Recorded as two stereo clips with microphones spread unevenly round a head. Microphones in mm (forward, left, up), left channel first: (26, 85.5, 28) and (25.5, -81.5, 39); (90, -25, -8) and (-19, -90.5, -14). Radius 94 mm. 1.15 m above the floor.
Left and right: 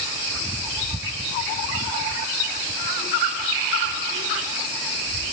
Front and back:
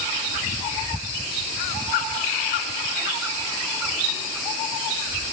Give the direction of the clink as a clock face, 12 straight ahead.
No clink in this recording.